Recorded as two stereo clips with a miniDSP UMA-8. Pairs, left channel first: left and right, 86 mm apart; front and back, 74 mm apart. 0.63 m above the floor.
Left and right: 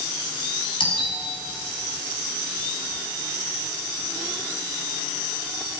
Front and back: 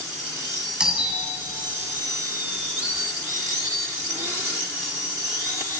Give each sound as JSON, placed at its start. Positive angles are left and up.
{"t": 0.8, "sound": "a doorbell", "azimuth_deg": 105, "distance_m": 7.0}